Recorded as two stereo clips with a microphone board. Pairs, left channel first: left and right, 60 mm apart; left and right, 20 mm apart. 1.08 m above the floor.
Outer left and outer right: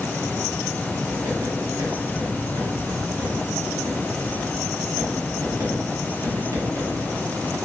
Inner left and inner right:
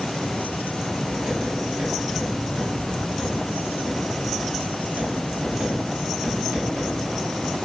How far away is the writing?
About 1.2 m.